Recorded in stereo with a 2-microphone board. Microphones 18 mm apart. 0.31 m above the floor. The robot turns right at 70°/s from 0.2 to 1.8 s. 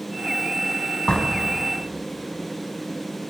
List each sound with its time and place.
1.1 s a door slam: 50° left (ahead or behind), 2 m; by 1.4 s 35° left (ahead or behind), 2 m